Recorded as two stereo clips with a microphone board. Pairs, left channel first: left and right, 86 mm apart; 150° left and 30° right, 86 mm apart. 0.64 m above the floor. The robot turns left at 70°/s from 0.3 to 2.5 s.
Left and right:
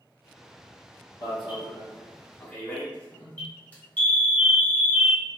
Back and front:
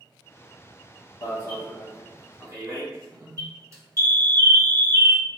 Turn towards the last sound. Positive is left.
turn(degrees=20)